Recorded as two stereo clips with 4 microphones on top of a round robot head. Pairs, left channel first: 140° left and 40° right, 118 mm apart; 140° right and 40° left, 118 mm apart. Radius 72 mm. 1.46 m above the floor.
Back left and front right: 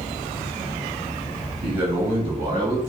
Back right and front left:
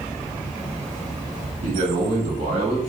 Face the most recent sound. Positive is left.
turn(degrees=0)